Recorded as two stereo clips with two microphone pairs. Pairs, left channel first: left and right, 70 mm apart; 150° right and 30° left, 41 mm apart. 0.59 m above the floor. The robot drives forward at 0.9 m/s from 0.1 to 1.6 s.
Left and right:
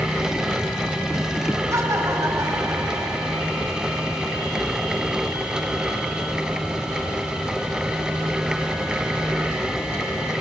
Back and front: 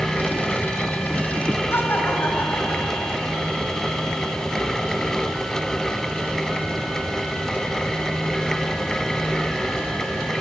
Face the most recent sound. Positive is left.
turn(degrees=-130)